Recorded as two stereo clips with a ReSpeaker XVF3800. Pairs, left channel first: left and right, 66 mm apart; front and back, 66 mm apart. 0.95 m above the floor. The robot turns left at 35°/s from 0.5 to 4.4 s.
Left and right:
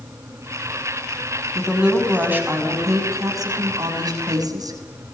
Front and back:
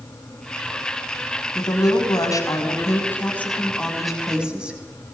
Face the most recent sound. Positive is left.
turn(degrees=-100)